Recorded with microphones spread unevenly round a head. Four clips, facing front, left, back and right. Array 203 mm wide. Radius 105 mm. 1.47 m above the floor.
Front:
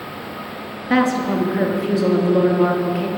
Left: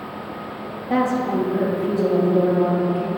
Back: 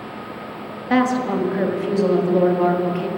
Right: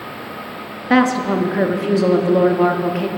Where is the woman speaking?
80° right, 0.7 m.